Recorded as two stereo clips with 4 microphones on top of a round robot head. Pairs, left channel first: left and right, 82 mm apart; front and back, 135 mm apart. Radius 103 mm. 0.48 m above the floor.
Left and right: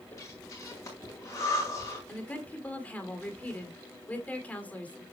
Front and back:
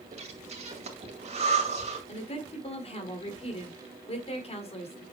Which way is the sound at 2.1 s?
25° left.